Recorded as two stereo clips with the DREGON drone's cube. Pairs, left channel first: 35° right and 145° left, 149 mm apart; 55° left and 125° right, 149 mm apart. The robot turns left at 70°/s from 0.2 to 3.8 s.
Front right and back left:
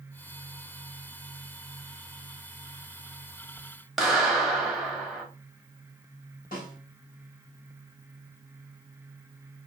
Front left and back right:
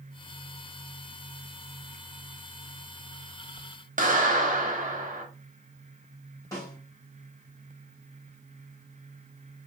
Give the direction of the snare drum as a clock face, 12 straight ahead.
12 o'clock.